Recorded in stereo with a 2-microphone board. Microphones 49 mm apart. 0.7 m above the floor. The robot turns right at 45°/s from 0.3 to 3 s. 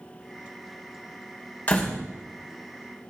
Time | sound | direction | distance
1.7 | a door slam | 30° left (ahead or behind) | 2.5 m